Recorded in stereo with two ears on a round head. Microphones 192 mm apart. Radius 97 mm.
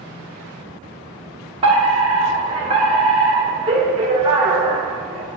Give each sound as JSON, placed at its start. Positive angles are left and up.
{"t": 1.6, "sound": "a fire alarm", "side_deg": -20, "distance_m": 2.5}